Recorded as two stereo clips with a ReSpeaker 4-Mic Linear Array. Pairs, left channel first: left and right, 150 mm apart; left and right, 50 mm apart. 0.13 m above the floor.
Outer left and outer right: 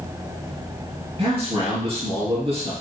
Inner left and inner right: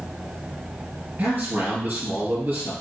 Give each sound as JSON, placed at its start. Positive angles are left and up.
{"t": 1.2, "sound": "a man speaking", "side_deg": -40, "distance_m": 2.5}